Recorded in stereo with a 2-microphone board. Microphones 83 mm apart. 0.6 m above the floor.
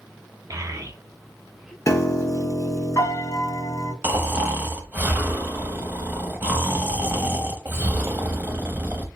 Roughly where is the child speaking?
Right.